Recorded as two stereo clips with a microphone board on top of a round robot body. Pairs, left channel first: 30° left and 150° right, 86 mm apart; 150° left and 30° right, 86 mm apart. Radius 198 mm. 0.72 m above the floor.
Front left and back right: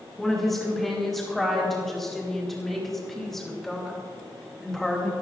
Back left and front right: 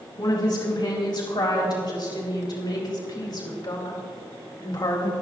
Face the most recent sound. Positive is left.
turn(degrees=115)